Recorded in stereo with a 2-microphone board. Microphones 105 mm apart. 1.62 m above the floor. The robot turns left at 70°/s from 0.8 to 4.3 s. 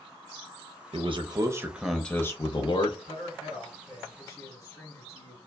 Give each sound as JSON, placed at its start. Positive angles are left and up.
{"t": 0.9, "sound": "a man speaking", "azimuth_deg": -110, "distance_m": 0.6}
{"t": 3.0, "sound": "a man speaking", "azimuth_deg": 120, "distance_m": 1.5}